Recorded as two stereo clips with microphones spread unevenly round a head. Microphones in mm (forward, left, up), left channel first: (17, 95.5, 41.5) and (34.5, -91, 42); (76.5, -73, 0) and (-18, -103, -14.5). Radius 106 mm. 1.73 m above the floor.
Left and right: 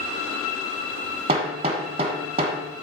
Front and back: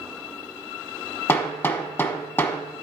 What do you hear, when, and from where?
1.3 s hammering: 35° right, 1.1 m